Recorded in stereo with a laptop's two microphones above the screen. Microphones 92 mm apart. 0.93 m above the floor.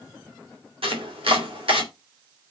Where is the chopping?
85° right, 3 m.